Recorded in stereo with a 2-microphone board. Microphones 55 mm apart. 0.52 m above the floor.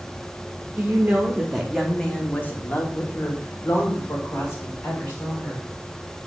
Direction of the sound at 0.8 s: 25° right (ahead or behind).